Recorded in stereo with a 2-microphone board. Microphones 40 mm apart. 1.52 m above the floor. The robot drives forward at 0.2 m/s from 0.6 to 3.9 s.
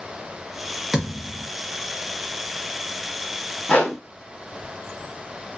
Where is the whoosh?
35° left (ahead or behind), 2 m.